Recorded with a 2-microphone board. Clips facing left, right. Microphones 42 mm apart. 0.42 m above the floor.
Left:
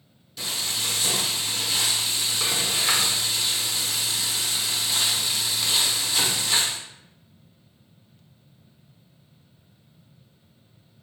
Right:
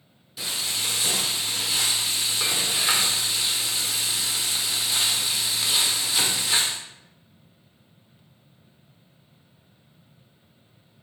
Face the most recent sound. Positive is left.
turn(degrees=-5)  # may be behind; listen again after turning